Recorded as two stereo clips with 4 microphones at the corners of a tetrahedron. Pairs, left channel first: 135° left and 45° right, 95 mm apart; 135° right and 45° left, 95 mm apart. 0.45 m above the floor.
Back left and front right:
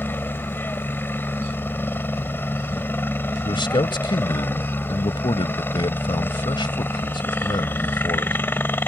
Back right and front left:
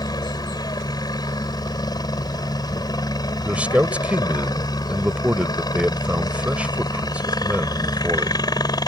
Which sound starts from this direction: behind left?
A man speaking, at 3.5 s.